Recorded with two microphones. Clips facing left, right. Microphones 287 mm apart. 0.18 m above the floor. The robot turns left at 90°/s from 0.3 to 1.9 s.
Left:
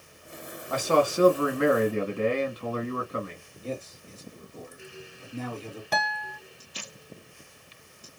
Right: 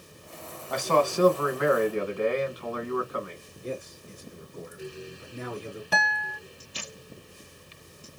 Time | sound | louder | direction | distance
0.7 | a man speaking | left 1 dB | straight behind | 1.7 m
3.6 | a man speaking | even | 15° right (ahead or behind) | 2.5 m
5.9 | a guitar | left 2 dB | 10° right (ahead or behind) | 1.0 m